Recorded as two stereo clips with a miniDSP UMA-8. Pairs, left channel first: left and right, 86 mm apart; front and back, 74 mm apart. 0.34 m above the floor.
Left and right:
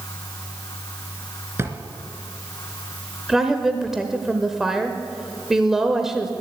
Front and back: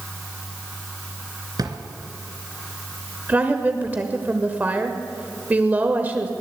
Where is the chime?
I don't hear a chime.